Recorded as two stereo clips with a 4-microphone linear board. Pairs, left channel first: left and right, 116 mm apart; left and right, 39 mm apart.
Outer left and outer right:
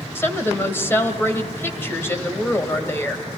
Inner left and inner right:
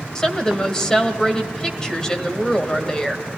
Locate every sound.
0.1 s a woman speaking: 20° left (ahead or behind), 1.6 m